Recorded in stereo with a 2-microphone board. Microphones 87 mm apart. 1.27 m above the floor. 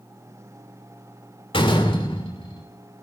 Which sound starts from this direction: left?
A door slam, at 1.5 s.